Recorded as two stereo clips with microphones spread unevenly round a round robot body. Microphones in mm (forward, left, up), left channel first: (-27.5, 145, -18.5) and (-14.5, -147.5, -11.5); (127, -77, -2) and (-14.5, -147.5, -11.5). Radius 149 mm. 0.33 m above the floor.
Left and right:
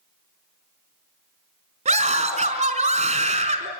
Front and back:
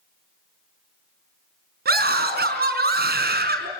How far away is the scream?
About 4.5 m.